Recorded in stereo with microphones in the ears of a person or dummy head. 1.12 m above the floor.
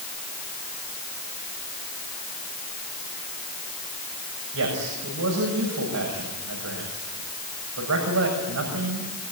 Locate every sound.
4.5 s a man speaking: 70° right (ahead or behind), 7 m